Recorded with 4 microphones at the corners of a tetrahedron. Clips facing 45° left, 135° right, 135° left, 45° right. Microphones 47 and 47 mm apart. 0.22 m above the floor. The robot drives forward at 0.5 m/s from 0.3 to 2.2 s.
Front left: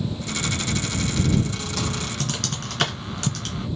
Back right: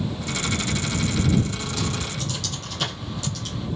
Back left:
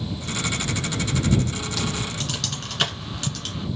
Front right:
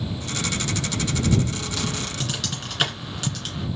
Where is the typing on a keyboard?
40° left, 1.4 m; by 3.7 s 45° left, 1.3 m.